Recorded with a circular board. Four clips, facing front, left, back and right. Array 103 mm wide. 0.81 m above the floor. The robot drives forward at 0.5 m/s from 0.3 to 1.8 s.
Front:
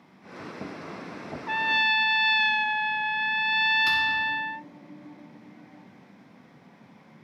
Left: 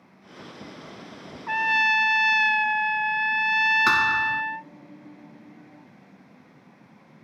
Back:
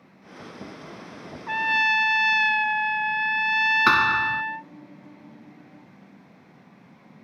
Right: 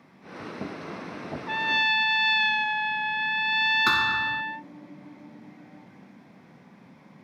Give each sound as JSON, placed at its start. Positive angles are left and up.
{"t": 1.5, "sound": "a trumpet", "azimuth_deg": 95}
{"t": 3.9, "sound": "a thud", "azimuth_deg": 170}